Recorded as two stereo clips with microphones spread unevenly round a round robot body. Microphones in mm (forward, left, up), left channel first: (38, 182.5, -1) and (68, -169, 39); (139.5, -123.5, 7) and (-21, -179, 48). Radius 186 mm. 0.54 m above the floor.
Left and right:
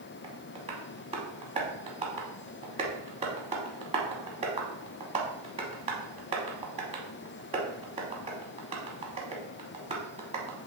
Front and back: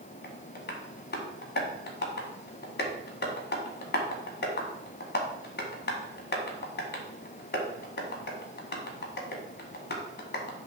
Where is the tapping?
15° right, 0.9 m.